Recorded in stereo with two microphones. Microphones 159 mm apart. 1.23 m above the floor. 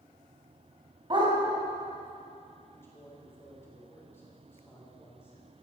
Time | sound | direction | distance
1.1 | a dog barking | 30° right (ahead or behind) | 3 m
2.7 | a man speaking | 15° left (ahead or behind) | 3 m